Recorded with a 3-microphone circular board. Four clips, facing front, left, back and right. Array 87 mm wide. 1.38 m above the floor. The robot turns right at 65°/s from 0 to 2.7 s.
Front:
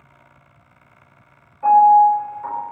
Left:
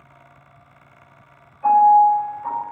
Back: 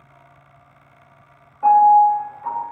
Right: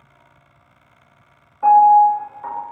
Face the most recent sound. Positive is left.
turn(degrees=-35)